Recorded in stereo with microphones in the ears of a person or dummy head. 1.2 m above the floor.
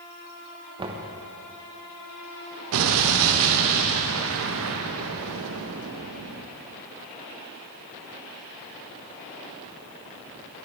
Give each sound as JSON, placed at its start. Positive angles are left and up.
{"t": 0.8, "sound": "knocking", "side_deg": -25, "distance_m": 1.1}
{"t": 2.7, "sound": "an explosion", "side_deg": -75, "distance_m": 0.9}